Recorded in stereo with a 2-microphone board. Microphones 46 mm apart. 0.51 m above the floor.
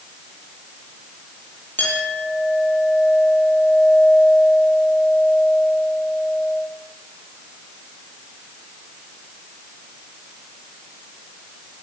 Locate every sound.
1.8 s a clink: 45° left (ahead or behind), 8 m